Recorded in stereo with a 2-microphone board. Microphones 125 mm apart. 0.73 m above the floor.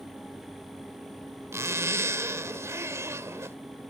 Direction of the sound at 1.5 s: 25° right (ahead or behind).